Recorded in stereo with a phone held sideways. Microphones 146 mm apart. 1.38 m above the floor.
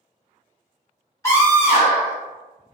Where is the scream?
20° left (ahead or behind), 1.9 m.